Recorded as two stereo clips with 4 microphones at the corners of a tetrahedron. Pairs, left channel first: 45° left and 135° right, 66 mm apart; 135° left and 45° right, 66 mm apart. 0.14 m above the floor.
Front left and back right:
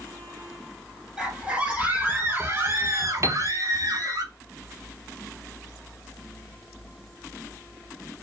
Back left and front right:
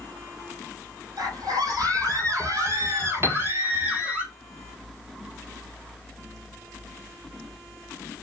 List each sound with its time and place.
1.2 s a scream: 50° right, 4 m; by 4.2 s 130° right, 3 m
3.2 s a piano: 95° right, 1.2 m